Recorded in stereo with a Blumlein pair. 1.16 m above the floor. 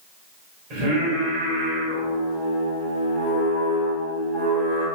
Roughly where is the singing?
Ahead right.